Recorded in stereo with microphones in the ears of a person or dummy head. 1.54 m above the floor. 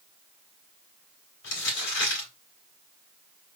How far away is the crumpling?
About 3 m.